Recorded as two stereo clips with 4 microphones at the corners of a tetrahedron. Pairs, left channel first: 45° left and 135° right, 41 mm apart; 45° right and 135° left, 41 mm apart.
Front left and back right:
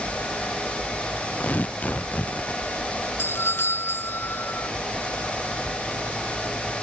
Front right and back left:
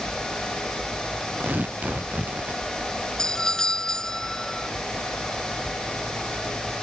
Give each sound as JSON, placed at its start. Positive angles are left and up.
{"t": 1.4, "sound": "tearing paper", "azimuth_deg": 95}
{"t": 3.2, "sound": "a doorbell", "azimuth_deg": 35}